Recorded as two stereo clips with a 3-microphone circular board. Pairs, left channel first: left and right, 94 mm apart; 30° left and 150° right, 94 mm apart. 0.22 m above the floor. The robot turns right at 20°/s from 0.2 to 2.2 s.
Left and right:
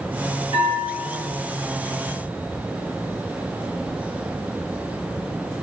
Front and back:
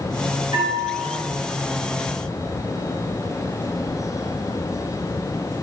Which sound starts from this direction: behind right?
A bell, at 0.5 s.